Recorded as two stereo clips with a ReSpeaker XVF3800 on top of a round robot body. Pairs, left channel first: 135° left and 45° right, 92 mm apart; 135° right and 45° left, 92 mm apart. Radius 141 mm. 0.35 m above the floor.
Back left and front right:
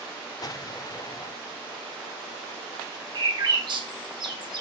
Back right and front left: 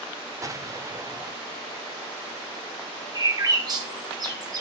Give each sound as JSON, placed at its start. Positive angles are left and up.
{"t": 0.4, "sound": "an explosion", "azimuth_deg": 95, "distance_m": 1.0}
{"t": 3.1, "sound": "a bird", "azimuth_deg": -5, "distance_m": 1.5}